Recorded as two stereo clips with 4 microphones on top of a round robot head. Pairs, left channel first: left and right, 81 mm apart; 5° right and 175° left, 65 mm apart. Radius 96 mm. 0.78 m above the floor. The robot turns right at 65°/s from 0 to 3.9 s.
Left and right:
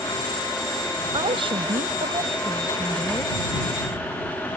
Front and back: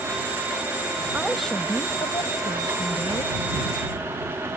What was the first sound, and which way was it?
A woman speaking, 110° right.